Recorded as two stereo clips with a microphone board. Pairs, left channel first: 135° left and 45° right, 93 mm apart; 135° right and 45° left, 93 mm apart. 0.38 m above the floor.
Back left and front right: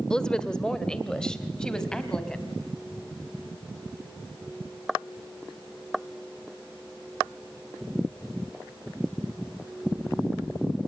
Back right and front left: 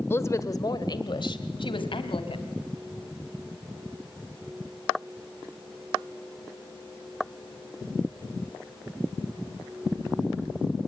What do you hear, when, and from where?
0.1 s a woman speaking: 155° right, 1.3 m; by 2.5 s 145° right, 3.5 m